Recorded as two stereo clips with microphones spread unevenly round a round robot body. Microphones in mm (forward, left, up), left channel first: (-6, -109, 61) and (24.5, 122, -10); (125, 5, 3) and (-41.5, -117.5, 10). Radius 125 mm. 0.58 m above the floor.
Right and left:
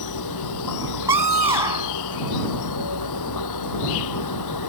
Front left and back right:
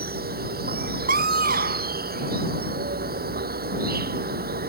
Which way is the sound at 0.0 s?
100° right.